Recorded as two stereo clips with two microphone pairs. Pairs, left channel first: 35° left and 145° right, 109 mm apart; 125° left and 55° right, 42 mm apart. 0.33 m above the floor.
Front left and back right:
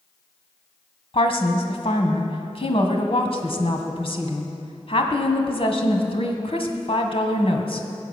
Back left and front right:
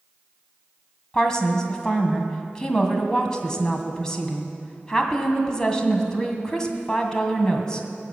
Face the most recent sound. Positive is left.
turn(degrees=50)